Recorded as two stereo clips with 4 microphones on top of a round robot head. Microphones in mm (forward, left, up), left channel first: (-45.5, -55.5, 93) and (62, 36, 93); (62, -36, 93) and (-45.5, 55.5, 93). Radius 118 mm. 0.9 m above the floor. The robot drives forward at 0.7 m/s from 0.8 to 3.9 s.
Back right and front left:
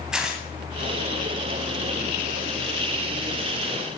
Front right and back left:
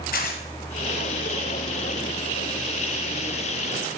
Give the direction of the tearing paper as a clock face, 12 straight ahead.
1 o'clock.